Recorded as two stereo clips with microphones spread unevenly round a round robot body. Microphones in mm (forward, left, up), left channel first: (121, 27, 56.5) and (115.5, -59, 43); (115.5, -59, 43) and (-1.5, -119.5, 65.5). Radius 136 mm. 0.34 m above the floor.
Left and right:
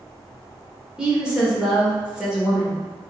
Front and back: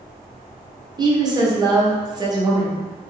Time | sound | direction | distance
1.0 | a woman speaking | 125° right | 0.9 m